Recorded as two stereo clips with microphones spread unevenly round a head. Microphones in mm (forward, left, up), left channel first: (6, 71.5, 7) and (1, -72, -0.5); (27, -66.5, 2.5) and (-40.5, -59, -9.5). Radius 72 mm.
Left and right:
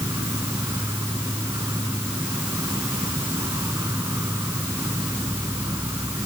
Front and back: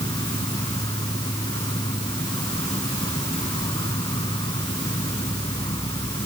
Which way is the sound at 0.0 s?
20° right.